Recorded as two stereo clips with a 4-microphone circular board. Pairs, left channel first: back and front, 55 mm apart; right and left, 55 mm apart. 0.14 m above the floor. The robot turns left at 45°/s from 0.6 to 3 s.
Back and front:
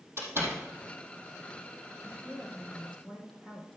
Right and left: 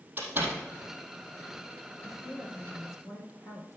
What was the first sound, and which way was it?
A door slam, 35° left.